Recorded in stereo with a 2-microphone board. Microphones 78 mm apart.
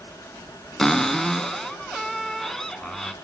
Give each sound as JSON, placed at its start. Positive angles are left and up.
{"t": 0.8, "sound": "a cupboard door", "side_deg": 5, "distance_m": 0.7}